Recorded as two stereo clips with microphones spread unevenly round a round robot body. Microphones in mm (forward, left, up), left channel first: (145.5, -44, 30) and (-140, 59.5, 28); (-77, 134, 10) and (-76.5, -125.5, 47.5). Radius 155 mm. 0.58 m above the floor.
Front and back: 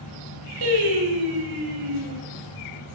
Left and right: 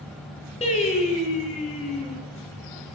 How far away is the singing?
About 5.5 m.